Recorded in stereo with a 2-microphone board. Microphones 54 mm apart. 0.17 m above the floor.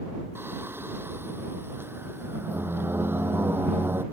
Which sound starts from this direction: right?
Singing, at 0.3 s.